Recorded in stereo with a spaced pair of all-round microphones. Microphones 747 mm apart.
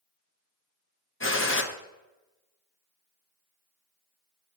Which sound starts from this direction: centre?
A gunshot, at 1.2 s.